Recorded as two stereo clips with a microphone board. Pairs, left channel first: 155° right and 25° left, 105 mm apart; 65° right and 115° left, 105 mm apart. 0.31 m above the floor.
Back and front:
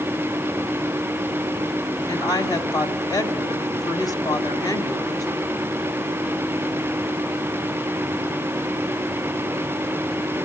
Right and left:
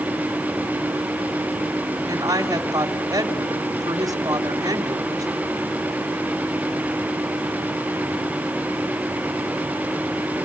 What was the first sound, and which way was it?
A woman speaking, 160° left.